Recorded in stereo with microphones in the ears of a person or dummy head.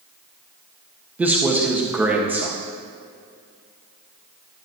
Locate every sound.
1.2 s a man speaking: 10° right (ahead or behind), 1.6 m